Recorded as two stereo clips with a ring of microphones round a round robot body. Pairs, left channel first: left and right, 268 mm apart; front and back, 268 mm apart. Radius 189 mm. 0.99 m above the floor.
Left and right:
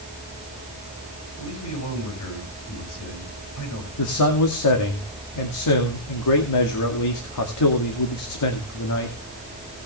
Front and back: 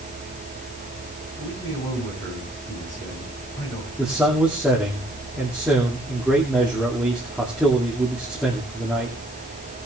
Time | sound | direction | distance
1.4 | a man speaking | 70° left | 7.5 m
4.0 | a man speaking | 95° left | 2.5 m